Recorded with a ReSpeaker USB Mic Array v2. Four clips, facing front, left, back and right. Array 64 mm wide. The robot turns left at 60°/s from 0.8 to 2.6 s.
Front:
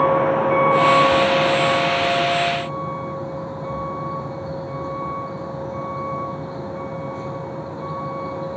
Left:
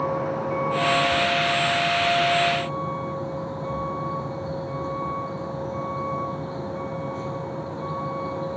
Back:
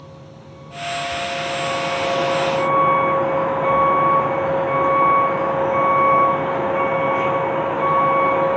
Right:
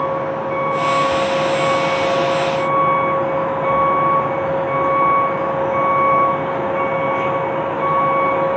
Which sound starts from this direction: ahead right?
A vehicle, at 0.0 s.